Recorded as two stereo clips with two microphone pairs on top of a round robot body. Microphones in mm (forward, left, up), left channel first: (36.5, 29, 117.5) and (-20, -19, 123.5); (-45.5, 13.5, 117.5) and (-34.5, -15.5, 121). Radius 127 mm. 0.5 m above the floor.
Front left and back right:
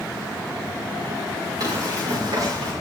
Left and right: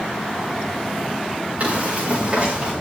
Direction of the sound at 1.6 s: 110° right.